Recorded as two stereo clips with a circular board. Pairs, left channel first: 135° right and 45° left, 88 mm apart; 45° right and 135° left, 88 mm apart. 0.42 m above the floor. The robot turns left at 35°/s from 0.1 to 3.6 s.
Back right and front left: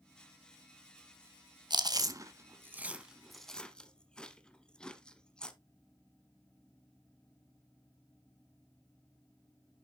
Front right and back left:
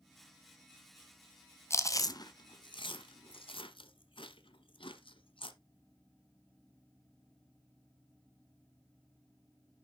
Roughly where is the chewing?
Ahead.